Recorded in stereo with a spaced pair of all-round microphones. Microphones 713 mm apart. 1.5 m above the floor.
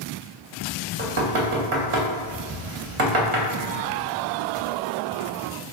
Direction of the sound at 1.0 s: 50° right (ahead or behind).